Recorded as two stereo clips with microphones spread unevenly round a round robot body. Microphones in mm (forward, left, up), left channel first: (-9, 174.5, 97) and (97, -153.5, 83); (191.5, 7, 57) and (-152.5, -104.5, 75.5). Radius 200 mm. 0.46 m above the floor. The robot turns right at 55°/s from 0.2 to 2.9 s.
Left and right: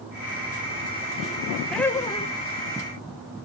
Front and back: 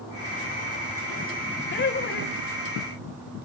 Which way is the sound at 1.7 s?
15° left.